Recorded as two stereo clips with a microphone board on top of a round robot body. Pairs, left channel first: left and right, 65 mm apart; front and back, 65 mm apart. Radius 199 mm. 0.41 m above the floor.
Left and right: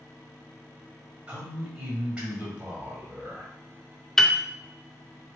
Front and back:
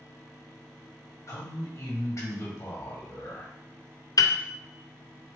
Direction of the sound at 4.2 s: 5° left.